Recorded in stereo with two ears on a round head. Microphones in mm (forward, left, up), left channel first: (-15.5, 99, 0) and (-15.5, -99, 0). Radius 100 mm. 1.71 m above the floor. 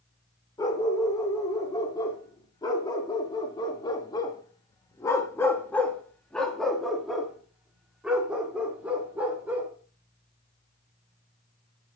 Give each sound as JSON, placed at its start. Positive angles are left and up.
{"t": 0.6, "sound": "a dog barking", "side_deg": 20, "distance_m": 2.5}